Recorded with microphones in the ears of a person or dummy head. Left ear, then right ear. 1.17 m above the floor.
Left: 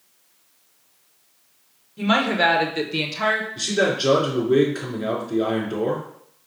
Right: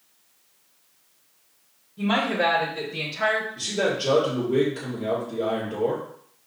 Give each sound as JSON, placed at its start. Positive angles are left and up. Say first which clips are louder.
{"t": 2.0, "sound": "a woman speaking", "louder": "left 4 dB", "side_deg": 75, "distance_m": 1.7}
{"t": 3.6, "sound": "a man speaking", "louder": "left 4 dB", "side_deg": 70, "distance_m": 2.5}